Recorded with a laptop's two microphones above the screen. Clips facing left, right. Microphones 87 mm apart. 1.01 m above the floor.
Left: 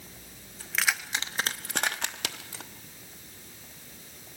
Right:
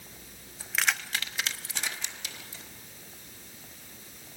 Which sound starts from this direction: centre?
Keys jangling, at 0.6 s.